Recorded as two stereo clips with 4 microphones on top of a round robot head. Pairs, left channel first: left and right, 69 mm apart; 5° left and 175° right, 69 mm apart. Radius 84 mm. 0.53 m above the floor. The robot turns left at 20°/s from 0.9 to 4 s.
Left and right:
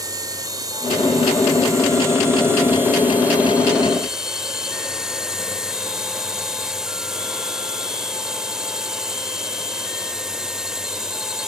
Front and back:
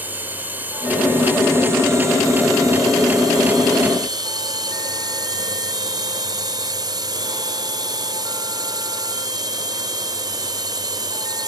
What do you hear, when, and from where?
0.0 s a drone: 110° right; by 11.5 s 170° right